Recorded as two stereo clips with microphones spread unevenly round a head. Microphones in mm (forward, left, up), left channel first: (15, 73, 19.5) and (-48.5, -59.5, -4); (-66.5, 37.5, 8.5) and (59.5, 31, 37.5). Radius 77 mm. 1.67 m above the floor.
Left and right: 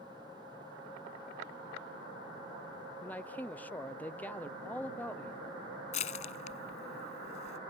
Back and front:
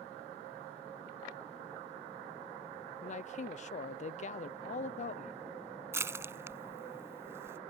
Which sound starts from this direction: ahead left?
Crushing, at 5.9 s.